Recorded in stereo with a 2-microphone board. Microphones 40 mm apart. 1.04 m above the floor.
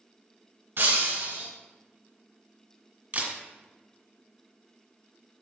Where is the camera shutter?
45° right (ahead or behind), 1.9 m.